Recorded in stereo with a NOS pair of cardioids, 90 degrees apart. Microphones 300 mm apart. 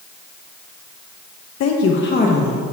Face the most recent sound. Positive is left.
turn(degrees=15)